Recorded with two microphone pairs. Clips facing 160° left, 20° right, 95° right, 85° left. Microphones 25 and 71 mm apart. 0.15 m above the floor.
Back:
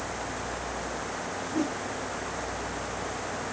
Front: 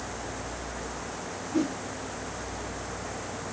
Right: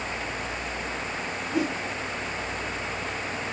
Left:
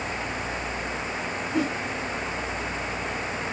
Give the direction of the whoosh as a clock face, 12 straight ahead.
12 o'clock.